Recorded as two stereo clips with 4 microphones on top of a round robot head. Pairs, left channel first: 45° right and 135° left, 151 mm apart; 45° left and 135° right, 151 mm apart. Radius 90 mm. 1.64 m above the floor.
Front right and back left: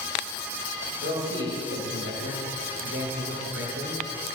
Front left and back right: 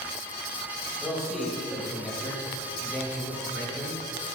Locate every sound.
1.0 s a man speaking: 130° left, 2.5 m